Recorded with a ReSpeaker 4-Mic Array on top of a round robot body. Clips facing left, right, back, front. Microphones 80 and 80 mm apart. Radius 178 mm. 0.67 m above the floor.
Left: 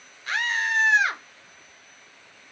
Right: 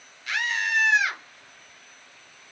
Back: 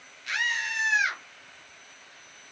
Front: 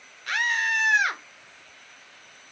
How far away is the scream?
About 0.8 m.